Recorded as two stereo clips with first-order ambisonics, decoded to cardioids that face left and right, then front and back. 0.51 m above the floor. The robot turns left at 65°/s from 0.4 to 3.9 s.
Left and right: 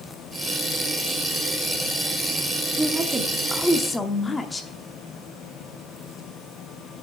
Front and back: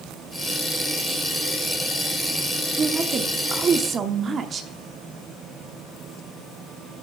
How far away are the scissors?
I don't hear scissors.